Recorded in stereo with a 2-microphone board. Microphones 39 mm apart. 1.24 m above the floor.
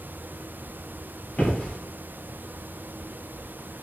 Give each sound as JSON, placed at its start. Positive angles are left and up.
{"t": 1.3, "sound": "footsteps", "side_deg": 35, "distance_m": 1.4}